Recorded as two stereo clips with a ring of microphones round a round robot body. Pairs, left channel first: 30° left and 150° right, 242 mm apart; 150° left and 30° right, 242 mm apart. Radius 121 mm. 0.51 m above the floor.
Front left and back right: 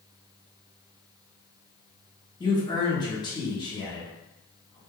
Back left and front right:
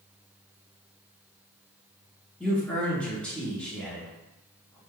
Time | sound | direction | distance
2.4 | a man speaking | 70° left | 1.0 m